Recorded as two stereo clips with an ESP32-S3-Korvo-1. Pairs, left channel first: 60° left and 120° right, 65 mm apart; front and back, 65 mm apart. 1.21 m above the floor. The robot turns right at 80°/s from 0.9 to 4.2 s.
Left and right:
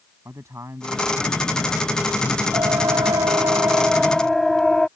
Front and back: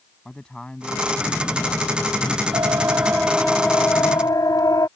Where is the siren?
165° right; by 4.9 s 20° right.